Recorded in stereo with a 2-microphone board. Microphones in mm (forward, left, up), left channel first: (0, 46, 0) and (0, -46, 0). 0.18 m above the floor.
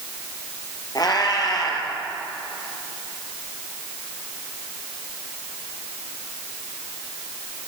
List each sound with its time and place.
0.9 s a cat meowing: 45° left (ahead or behind), 2.0 m